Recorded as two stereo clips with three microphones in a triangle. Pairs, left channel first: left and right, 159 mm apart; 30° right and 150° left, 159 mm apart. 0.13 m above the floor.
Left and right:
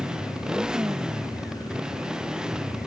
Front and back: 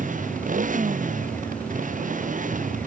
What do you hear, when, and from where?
0.0 s a motorcycle: 175° right